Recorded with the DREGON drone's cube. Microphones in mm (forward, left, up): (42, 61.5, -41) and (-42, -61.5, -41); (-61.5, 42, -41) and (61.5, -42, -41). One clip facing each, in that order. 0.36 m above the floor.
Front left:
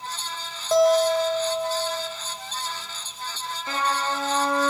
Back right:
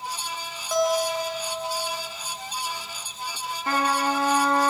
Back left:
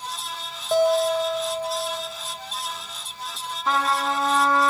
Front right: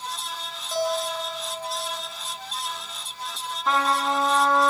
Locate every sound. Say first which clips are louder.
0.7 s a guitar: front left 6 dB, back left 7 dB; 115° left, 2.5 m
3.7 s a trumpet: back right 3 dB, even; 125° right, 2.5 m